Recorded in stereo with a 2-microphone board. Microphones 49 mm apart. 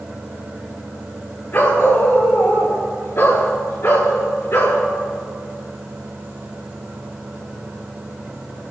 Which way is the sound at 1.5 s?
40° left (ahead or behind).